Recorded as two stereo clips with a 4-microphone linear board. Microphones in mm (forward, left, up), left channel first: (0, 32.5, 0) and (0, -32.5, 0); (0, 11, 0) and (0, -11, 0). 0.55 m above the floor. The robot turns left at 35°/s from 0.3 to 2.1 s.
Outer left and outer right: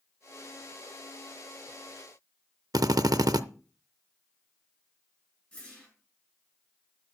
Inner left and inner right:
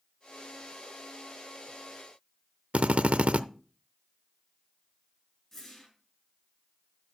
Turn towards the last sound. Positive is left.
turn(degrees=20)  # may be behind; listen again after turning